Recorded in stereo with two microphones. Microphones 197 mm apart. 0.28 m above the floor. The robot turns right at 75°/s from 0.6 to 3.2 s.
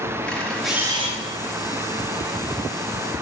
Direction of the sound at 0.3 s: 175° left.